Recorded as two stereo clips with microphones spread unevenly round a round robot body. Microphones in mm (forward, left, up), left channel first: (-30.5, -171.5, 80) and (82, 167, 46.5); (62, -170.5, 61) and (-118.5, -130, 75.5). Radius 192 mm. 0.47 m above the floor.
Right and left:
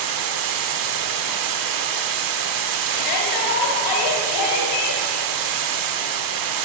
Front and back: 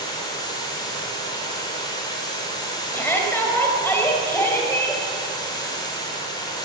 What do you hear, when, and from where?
0.0 s running water: 55° left, 0.8 m
2.9 s a shout: 90° right, 2.5 m